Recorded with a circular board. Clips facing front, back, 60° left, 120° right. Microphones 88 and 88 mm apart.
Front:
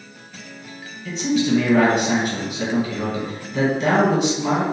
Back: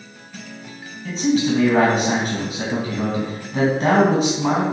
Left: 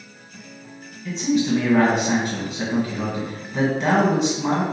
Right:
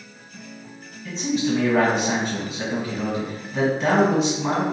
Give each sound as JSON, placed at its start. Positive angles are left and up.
{"t": 1.1, "sound": "a man speaking", "azimuth_deg": 150, "distance_m": 1.3}